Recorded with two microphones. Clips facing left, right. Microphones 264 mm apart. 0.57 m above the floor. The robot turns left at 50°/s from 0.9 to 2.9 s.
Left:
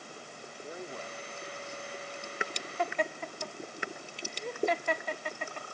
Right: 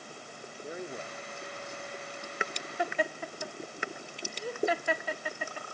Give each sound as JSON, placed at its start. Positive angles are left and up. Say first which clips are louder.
{"t": 0.6, "sound": "a man speaking", "louder": "right 3 dB", "azimuth_deg": -30, "distance_m": 1.3}
{"t": 2.8, "sound": "laughter", "louder": "right 1 dB", "side_deg": -10, "distance_m": 0.7}